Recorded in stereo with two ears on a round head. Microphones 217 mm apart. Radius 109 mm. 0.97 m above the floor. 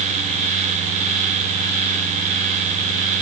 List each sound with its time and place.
Only background noise.